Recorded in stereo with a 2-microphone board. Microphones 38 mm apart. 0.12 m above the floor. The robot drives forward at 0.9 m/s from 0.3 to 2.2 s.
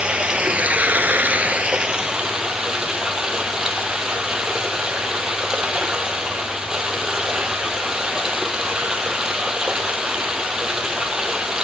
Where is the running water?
25° right (ahead or behind), 0.9 m; by 11.6 s 20° right (ahead or behind), 1.2 m.